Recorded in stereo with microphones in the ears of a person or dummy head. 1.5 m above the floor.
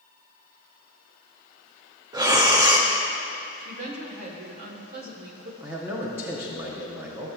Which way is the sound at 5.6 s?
10° right (ahead or behind).